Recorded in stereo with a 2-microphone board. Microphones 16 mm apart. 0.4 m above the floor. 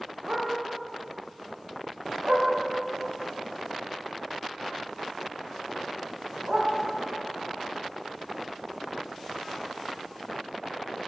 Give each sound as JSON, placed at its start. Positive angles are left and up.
{"t": 0.3, "sound": "a dog barking", "side_deg": -75, "distance_m": 10.0}